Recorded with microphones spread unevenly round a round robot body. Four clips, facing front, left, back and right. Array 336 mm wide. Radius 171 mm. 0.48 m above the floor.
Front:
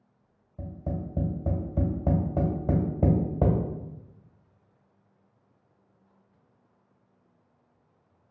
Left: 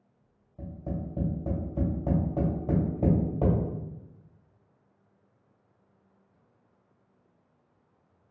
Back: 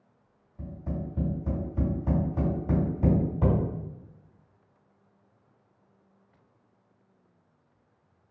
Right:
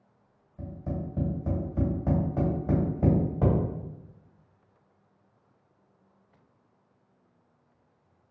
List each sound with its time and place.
0.6 s tapping: 5° right, 2.0 m